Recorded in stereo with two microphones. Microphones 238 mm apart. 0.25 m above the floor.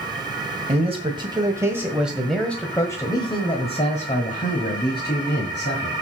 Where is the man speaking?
25° right (ahead or behind), 1.9 m; by 5.9 s 50° left (ahead or behind), 2.5 m.